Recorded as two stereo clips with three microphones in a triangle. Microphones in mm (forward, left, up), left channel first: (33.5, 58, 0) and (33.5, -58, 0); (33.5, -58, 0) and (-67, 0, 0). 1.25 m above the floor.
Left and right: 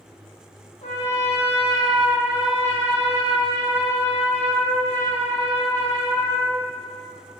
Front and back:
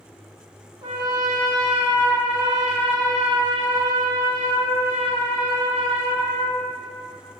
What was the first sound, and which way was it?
A trumpet, 100° left.